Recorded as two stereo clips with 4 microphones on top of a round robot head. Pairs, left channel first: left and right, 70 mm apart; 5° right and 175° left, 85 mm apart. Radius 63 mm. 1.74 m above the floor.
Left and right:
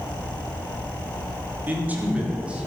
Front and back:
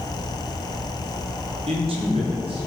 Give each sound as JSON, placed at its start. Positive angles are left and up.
{"t": 1.7, "sound": "a man speaking", "azimuth_deg": -155, "distance_m": 4.0}